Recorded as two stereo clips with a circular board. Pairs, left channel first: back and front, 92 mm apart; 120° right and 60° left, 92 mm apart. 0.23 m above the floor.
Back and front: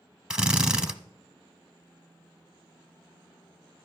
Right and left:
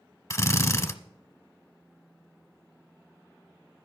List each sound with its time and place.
0.3 s a drill: 75° right, 0.8 m